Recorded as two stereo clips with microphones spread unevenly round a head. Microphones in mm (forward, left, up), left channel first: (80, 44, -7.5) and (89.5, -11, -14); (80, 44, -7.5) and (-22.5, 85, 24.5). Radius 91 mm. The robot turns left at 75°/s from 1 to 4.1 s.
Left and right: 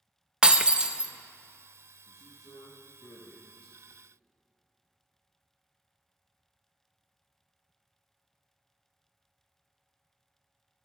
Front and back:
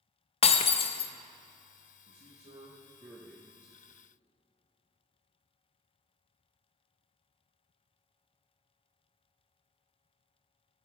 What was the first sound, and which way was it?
Breaking glass, 10° right.